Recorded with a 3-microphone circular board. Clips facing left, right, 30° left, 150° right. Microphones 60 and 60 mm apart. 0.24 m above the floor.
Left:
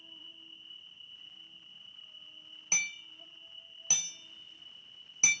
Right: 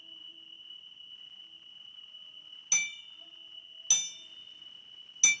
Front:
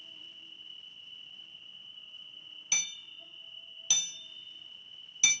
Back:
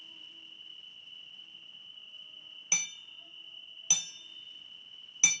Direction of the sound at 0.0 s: 120° left.